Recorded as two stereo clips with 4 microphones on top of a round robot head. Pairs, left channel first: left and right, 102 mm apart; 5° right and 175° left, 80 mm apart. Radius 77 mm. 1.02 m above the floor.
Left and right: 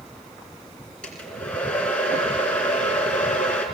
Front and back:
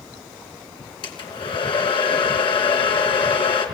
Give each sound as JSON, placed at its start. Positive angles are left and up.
{"t": 1.0, "sound": "a hair dryer", "azimuth_deg": 10, "distance_m": 2.5}